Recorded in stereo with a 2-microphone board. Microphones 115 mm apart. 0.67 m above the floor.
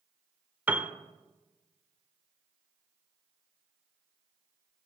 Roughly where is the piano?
Centre.